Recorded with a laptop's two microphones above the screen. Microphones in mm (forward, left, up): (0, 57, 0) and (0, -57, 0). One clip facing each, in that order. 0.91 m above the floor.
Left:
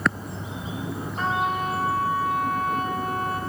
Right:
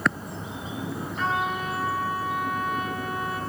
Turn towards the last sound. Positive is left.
turn(degrees=40)  # may be behind; listen again after turning